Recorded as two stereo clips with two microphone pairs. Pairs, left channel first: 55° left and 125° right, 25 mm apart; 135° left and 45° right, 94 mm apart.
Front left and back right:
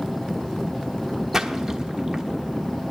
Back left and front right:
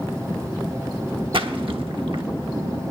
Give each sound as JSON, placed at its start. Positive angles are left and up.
{"t": 1.3, "sound": "a splash", "azimuth_deg": -50, "distance_m": 0.9}